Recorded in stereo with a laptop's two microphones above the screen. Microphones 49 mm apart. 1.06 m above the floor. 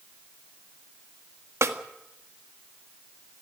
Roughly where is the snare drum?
Right.